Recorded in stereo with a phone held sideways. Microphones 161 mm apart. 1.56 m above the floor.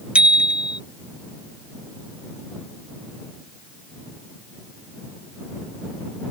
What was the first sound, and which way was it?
A bicycle bell, 5° right (ahead or behind).